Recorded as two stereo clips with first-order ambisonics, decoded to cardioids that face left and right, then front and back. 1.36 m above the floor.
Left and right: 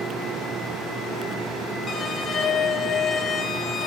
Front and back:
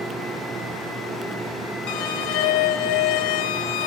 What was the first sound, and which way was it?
A violin, 25° left.